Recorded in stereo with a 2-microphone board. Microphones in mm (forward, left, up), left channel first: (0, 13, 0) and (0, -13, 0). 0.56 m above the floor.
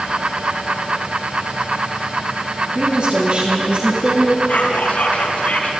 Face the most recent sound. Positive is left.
turn(degrees=70)  # may be behind; listen again after turning